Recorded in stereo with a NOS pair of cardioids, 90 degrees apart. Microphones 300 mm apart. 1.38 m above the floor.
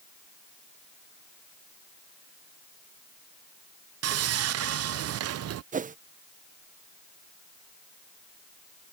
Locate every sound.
4.0 s sawing: 55° right
5.7 s a whoosh: 25° right